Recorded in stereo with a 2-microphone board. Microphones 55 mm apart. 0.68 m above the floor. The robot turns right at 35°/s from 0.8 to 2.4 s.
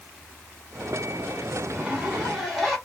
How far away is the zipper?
About 1.2 m.